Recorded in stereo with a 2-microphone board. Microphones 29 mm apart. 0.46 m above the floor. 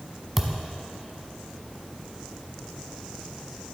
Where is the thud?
5° right (ahead or behind), 0.9 m.